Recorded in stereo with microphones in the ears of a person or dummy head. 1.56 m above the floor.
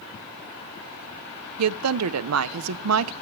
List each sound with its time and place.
1.6 s a woman speaking: 75° right (ahead or behind), 0.7 m